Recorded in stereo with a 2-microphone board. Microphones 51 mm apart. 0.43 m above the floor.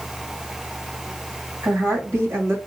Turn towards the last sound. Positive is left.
turn(degrees=-65)  # may be behind; listen again after turning